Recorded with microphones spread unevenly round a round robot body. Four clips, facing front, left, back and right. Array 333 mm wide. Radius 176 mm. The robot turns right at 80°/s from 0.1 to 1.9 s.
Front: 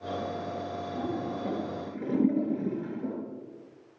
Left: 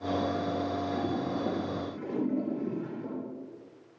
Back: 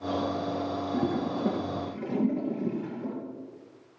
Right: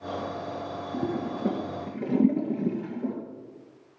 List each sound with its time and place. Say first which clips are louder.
0.9 s a toilet flushing: right 1 dB, back 4 dB; 150° right, 2.5 m; by 3.1 s 70° right, 2.5 m